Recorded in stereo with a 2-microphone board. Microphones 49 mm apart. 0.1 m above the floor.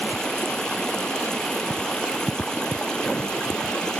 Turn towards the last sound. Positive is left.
turn(degrees=15)  # may be behind; listen again after turning